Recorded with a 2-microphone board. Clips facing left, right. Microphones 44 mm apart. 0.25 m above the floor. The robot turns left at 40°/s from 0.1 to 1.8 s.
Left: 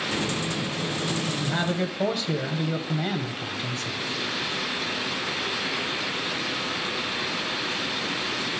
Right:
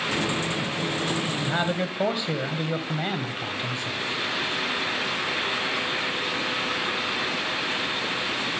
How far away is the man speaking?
About 1.1 m.